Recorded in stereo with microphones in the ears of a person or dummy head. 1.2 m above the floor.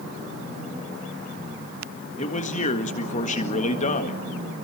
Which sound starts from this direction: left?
A man speaking, at 2.2 s.